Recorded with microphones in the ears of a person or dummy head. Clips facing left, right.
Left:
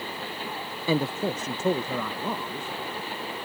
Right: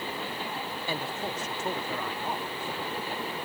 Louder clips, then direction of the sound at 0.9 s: Left 11 dB; 70° left (ahead or behind).